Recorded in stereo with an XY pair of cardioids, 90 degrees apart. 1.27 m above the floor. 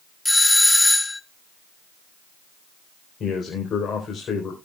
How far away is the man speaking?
About 4 m.